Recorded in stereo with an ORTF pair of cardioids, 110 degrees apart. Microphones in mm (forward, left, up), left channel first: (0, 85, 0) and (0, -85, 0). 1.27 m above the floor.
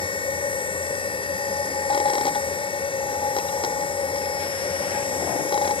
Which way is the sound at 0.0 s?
30° left.